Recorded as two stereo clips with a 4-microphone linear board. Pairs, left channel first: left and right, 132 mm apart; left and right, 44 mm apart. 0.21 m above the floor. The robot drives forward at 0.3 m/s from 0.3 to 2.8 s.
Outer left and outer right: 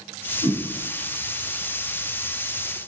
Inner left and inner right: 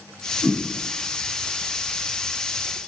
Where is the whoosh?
30° right (ahead or behind), 1.0 m.